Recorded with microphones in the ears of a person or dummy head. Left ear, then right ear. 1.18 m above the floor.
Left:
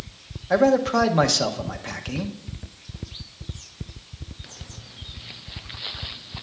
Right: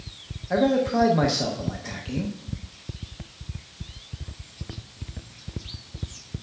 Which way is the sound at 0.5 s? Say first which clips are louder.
Left 4 dB; 35° left (ahead or behind).